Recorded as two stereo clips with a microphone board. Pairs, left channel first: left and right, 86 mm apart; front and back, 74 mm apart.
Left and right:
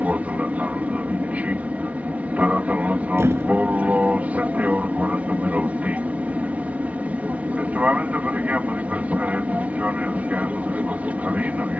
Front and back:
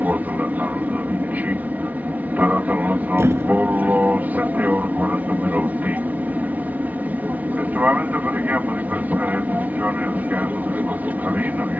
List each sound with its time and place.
0.0 s an aircraft: 140° right
3.2 s a thud: 140° right